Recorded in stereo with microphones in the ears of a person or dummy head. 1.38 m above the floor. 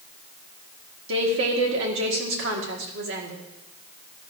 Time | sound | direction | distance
1.1 | a woman speaking | 60° right (ahead or behind) | 1.6 m